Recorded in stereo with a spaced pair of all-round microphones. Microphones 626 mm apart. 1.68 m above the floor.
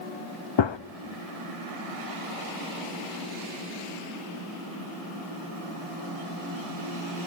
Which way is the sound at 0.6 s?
45° left (ahead or behind).